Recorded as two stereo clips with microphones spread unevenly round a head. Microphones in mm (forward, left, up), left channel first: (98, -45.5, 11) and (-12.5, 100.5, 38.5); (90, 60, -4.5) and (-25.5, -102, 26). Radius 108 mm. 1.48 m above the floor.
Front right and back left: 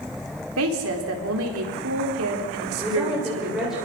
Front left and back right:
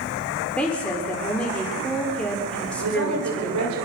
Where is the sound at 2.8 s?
145° right, 7.5 m.